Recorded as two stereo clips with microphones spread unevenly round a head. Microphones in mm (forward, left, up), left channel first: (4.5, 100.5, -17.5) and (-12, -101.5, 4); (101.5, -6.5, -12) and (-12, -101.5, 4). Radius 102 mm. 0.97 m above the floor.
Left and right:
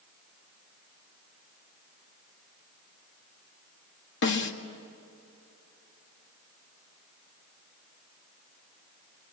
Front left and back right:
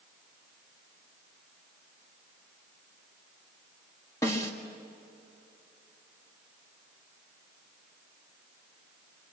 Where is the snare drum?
115° left, 1.8 m.